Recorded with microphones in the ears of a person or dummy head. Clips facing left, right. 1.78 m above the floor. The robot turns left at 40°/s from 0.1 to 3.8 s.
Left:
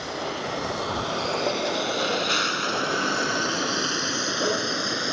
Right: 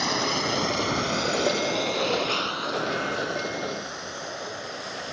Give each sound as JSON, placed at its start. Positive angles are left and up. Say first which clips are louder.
{"t": 0.0, "sound": "a vehicle", "louder": "right 3 dB", "side_deg": -65}